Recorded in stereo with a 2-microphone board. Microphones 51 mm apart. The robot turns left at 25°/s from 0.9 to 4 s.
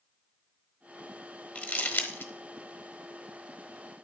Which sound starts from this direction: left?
Crumpling, at 1.6 s.